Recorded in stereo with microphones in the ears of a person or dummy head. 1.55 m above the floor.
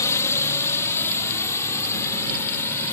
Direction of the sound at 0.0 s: 20° left (ahead or behind).